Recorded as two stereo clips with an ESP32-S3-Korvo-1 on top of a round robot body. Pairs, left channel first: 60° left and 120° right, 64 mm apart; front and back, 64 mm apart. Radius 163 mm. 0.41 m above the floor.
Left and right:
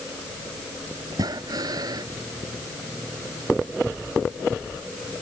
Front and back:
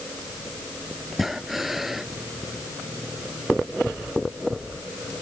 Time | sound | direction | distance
1.1 | breathing | 95° right | ?